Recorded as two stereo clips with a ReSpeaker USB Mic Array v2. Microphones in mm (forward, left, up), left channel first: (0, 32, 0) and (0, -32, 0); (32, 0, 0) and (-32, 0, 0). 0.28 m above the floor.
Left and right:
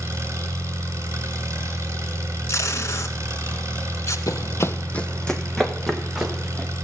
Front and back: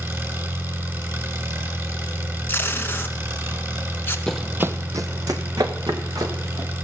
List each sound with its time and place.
0.0 s an engine running: 135° right, 2.5 m
2.5 s tape being pulled: 55° left, 0.9 m
4.3 s running footsteps: 75° left, 0.5 m; by 6.7 s 175° right, 2.5 m